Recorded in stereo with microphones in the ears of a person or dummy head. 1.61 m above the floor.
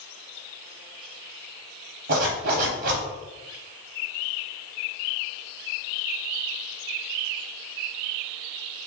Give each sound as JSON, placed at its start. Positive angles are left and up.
{"t": 2.1, "sound": "a zipper", "side_deg": -50, "distance_m": 1.1}